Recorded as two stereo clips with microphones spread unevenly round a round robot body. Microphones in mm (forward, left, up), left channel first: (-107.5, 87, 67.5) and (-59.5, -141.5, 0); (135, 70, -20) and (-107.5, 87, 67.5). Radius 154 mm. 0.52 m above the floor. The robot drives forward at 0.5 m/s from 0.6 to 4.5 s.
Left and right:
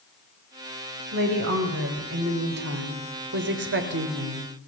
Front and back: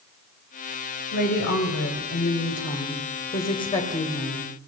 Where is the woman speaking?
40° right, 3 m; by 4.5 s 75° right, 2 m.